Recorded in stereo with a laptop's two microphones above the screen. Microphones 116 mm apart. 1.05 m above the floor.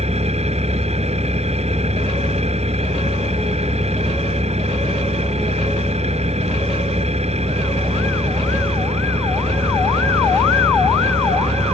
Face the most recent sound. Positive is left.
turn(degrees=-65)  # may be behind; listen again after turning